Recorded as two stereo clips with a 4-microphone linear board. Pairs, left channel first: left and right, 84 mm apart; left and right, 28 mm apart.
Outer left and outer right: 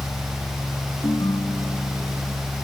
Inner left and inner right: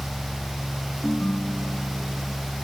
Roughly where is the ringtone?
Left.